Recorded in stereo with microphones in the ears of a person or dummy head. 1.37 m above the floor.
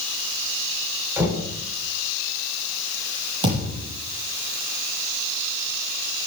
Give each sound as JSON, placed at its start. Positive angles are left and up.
{"t": 1.2, "sound": "knocking", "side_deg": -10, "distance_m": 3.0}
{"t": 3.4, "sound": "a thud", "side_deg": -25, "distance_m": 8.0}